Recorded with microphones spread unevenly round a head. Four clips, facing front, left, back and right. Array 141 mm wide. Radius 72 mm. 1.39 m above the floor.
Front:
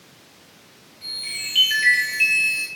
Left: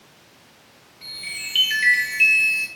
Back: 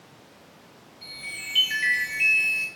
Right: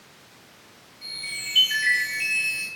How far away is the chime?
About 3 m.